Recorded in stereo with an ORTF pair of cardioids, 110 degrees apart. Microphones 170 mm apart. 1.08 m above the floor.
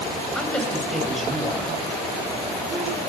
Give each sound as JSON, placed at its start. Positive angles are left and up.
{"t": 0.3, "sound": "a woman speaking", "azimuth_deg": 5, "distance_m": 7.0}